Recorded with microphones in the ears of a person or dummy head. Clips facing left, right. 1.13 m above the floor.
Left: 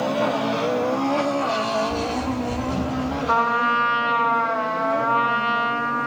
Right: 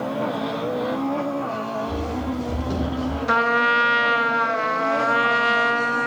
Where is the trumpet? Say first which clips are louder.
Right 1 dB; 15° right (ahead or behind), 0.7 m.